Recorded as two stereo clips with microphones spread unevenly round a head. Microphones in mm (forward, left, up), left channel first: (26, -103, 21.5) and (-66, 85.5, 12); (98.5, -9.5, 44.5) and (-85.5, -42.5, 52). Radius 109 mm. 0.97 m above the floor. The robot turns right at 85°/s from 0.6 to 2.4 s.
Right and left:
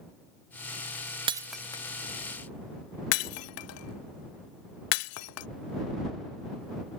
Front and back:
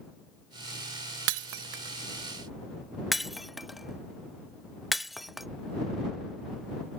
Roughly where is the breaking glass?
Behind.